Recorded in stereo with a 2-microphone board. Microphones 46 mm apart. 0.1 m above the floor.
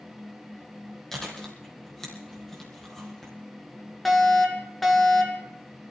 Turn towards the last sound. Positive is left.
turn(degrees=0)  # may be behind; listen again after turning